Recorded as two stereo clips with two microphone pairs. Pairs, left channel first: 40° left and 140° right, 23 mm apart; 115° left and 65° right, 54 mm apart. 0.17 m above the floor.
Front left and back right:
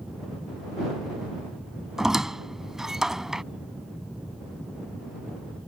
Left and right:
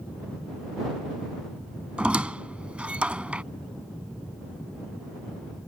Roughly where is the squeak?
Right.